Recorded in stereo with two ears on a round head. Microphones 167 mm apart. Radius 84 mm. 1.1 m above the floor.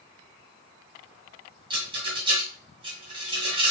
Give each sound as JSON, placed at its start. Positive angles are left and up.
{"t": 1.7, "sound": "a rattle", "side_deg": -30, "distance_m": 2.0}